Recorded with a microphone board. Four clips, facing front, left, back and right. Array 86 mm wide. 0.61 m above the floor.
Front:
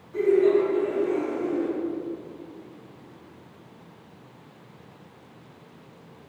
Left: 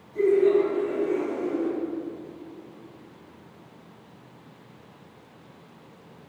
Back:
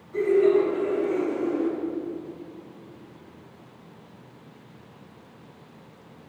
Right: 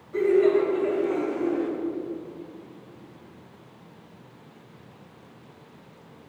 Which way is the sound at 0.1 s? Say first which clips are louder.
Even, even; 110° right.